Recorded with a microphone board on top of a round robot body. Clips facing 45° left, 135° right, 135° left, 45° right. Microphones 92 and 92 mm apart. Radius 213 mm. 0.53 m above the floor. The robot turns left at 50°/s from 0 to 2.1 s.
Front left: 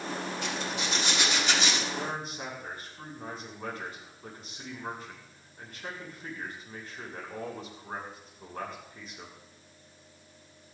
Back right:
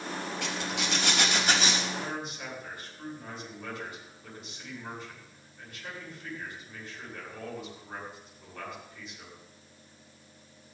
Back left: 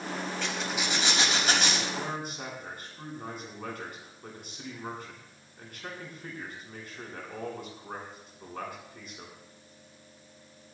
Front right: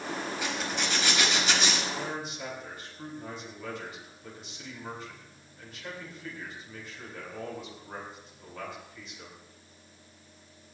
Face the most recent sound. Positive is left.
turn(degrees=95)